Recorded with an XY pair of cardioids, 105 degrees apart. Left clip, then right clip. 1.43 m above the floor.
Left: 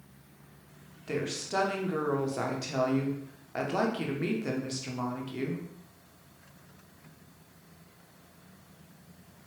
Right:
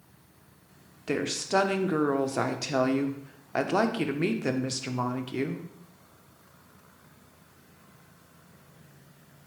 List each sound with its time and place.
1.1 s a woman speaking: 45° right, 0.7 m